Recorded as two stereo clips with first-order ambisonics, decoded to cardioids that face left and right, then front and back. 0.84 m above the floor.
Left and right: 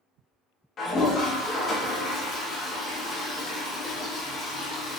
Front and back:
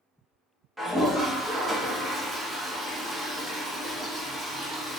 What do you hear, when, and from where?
0.8 s a toilet flushing: 105° left, 0.9 m